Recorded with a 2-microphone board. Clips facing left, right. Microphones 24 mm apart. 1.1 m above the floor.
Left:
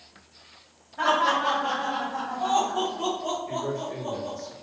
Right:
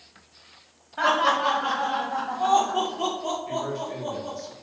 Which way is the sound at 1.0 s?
65° right (ahead or behind).